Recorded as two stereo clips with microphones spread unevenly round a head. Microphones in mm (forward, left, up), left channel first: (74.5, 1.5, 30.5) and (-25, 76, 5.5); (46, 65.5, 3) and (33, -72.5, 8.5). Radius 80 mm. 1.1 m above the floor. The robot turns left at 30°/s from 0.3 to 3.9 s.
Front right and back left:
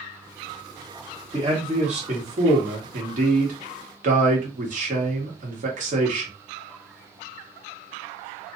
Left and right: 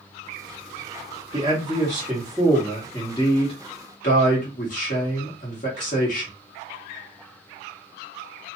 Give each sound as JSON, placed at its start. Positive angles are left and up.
{"t": 1.3, "sound": "a man speaking", "azimuth_deg": -155, "distance_m": 1.6}